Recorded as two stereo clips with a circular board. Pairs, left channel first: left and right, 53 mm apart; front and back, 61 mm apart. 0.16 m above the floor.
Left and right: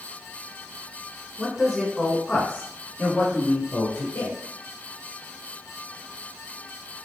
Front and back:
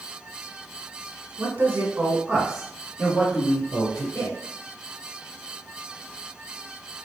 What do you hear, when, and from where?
1.4 s a man speaking: 165° right, 1.3 m; by 4.4 s 75° left, 2 m